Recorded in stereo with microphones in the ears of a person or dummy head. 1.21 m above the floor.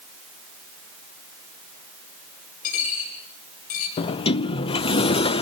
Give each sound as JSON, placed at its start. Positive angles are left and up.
{"t": 2.6, "sound": "a dropped coin", "side_deg": 50, "distance_m": 9.0}
{"t": 4.0, "sound": "a sliding door", "side_deg": 40, "distance_m": 0.6}